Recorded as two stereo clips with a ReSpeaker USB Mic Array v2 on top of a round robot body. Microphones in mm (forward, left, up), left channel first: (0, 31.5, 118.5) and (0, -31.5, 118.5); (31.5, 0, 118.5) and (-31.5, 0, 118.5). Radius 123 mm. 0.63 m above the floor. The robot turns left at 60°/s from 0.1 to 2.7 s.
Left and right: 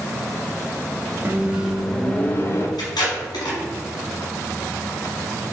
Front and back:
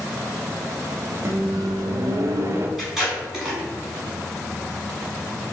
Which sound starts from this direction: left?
Tape being pulled, at 2.8 s.